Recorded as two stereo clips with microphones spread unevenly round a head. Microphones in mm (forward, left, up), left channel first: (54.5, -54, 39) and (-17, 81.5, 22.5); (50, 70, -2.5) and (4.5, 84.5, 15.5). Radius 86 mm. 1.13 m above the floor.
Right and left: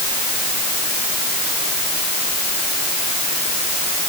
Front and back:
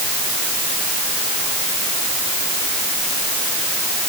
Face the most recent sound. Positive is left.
No sound to turn to.